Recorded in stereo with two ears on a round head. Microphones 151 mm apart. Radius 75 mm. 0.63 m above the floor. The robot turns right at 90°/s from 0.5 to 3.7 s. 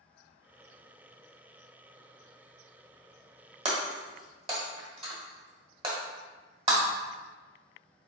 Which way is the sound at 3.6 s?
40° right (ahead or behind).